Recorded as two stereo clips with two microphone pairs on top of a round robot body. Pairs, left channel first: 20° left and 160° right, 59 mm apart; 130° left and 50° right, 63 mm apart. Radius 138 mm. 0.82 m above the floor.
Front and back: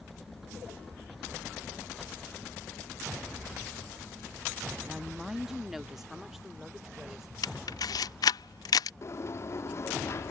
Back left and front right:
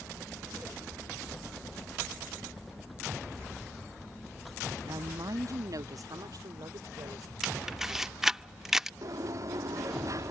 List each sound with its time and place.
4.8 s a woman speaking: 75° right
7.4 s a camera shutter: 40° left
9.0 s a sliding door: 20° right